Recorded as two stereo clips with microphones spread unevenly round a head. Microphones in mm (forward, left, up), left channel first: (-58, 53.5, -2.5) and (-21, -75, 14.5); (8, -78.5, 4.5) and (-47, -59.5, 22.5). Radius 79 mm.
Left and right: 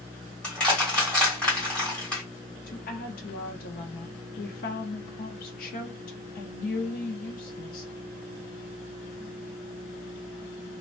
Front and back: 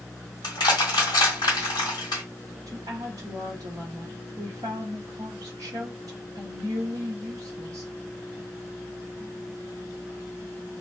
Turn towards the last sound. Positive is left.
turn(degrees=110)